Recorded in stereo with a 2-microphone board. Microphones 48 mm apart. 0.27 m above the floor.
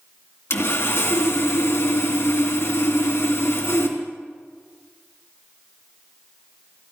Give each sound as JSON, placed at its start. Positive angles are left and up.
{"t": 0.5, "sound": "sawing", "side_deg": 65, "distance_m": 2.5}